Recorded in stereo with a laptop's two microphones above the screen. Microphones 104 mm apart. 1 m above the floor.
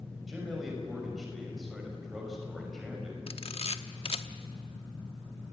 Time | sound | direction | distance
0.3 | a man speaking | centre (ahead or behind) | 5.5 m
3.3 | a camera shutter | 65° left (ahead or behind) | 0.9 m